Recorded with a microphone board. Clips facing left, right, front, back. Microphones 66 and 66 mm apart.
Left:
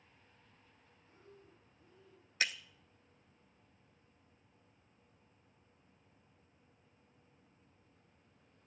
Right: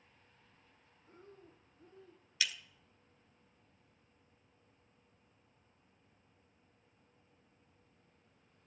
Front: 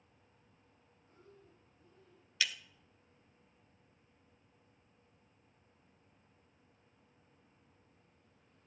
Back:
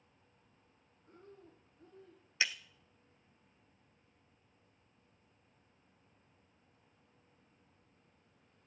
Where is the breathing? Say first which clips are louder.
Right 3 dB, back 5 dB; 140° right, 2.5 m.